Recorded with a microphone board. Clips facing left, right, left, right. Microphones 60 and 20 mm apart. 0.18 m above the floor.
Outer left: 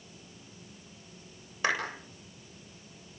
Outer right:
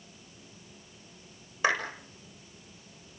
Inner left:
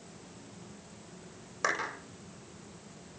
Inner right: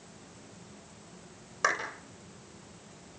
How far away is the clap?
About 7 m.